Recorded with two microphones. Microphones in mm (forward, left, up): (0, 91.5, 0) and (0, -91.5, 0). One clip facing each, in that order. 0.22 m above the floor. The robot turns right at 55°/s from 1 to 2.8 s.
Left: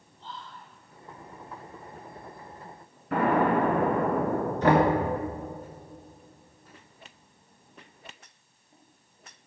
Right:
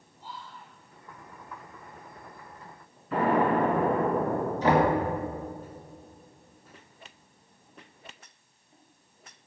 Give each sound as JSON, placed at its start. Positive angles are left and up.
{"t": 0.2, "sound": "whispering", "side_deg": -5, "distance_m": 1.4}
{"t": 3.1, "sound": "an explosion", "side_deg": 60, "distance_m": 2.5}
{"t": 4.6, "sound": "knocking", "side_deg": 60, "distance_m": 2.0}